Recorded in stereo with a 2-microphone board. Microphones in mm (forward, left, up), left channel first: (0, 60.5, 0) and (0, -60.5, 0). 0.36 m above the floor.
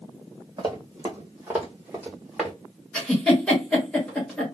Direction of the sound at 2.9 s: 5° left (ahead or behind).